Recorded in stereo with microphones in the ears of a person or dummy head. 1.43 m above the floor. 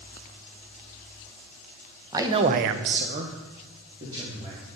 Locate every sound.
2.1 s a man speaking: 15° right (ahead or behind), 1.1 m; by 4.6 s 20° right (ahead or behind), 3 m